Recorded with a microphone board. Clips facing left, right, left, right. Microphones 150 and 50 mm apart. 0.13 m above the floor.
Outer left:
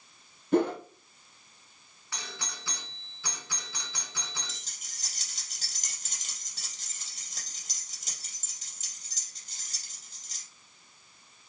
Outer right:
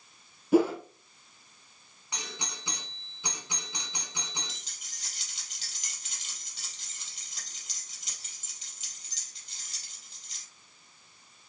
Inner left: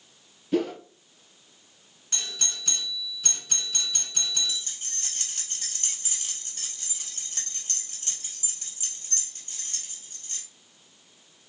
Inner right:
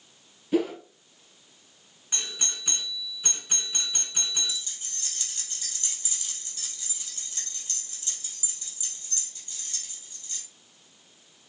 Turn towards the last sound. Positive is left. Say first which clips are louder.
# even, inner left 1 dB
turn(degrees=45)  # may be behind; listen again after turning